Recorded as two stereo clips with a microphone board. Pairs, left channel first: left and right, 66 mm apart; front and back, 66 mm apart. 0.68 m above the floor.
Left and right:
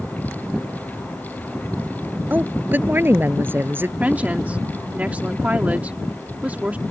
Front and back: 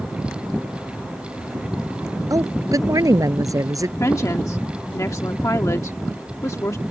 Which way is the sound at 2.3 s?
150° right.